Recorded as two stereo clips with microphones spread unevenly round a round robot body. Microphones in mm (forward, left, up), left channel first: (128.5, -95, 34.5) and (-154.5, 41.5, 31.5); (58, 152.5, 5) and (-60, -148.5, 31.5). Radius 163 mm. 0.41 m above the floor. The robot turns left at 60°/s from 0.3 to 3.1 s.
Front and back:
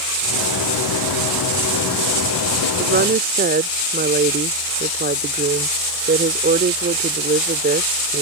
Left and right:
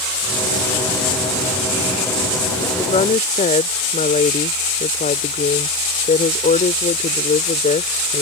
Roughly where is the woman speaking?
Behind left.